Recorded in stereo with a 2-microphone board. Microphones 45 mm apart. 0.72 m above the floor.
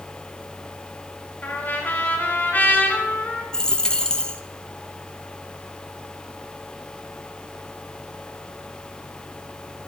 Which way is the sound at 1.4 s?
40° left (ahead or behind).